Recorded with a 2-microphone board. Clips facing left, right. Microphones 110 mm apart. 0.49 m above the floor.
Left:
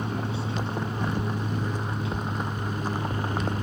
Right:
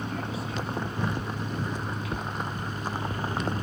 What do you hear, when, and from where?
0.0 s an aircraft: 30° left (ahead or behind); by 3.6 s 25° left (ahead or behind)